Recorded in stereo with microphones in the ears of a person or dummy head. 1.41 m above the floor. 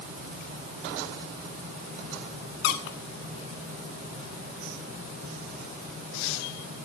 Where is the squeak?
60° left (ahead or behind), 1.8 m.